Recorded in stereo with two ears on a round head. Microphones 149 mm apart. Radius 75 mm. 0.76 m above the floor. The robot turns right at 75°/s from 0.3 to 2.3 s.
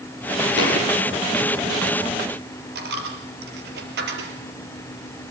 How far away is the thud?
About 7.5 m.